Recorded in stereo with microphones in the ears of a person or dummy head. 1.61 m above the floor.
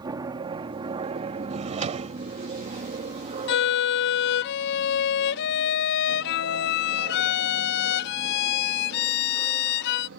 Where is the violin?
60° left (ahead or behind).